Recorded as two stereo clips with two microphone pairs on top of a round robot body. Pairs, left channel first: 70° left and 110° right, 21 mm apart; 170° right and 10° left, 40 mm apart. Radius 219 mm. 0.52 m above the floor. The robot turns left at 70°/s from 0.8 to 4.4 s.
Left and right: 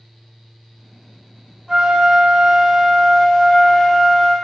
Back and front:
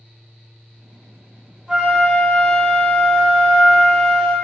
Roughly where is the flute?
Right.